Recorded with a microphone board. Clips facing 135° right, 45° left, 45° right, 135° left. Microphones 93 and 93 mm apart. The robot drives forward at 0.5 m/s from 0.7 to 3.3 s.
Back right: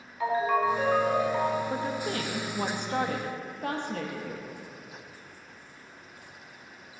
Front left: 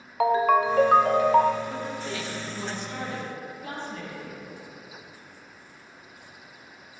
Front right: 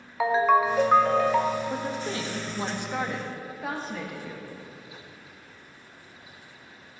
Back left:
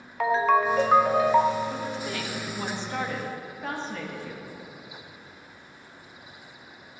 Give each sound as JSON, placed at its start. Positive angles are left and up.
{"t": 0.2, "sound": "a ringtone", "azimuth_deg": 40, "distance_m": 0.7}
{"t": 1.7, "sound": "a woman speaking", "azimuth_deg": -85, "distance_m": 1.0}